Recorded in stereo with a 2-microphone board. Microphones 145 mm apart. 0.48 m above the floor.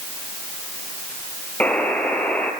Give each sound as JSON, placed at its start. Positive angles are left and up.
{"t": 1.6, "sound": "a buzzer", "side_deg": 10, "distance_m": 3.5}